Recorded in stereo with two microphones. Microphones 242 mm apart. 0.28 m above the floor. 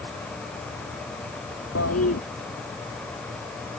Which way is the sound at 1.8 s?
85° left.